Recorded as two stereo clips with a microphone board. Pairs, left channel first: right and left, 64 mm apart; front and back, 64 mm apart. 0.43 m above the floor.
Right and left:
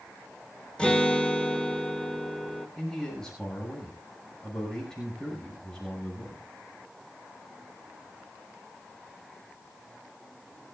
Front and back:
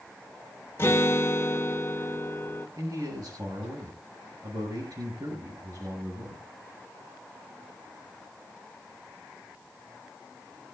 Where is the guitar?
25° right, 1.8 m.